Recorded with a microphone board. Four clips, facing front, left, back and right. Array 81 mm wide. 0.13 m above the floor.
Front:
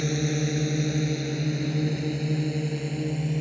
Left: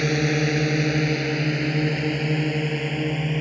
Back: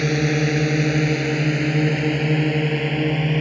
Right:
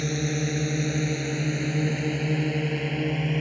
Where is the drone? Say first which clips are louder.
Left 6 dB, back 7 dB; 140° left; by 3.4 s 175° left.